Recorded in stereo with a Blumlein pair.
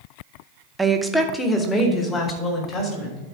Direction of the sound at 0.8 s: 10° right.